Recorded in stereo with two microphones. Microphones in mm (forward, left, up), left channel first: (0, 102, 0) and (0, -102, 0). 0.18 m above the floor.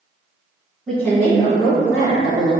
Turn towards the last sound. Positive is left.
turn(degrees=50)  # may be behind; listen again after turning